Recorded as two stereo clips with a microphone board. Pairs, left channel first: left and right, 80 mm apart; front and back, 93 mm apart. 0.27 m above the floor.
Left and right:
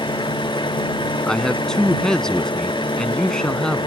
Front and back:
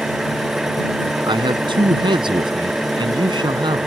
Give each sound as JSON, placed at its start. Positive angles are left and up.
{"t": 0.0, "sound": "an engine running", "azimuth_deg": 95}
{"t": 1.3, "sound": "a man speaking", "azimuth_deg": 170}